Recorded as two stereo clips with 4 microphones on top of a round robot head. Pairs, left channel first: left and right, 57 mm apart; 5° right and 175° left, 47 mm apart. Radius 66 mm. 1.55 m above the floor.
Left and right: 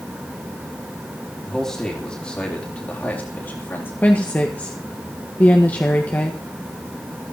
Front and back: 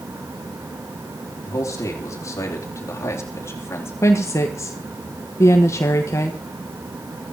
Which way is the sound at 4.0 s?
20° left.